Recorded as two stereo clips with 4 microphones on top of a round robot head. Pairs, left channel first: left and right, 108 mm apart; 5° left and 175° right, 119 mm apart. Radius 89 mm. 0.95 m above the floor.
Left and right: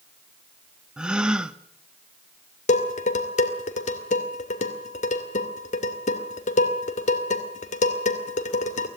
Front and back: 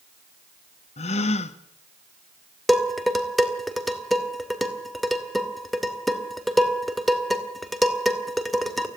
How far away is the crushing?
I don't hear crushing.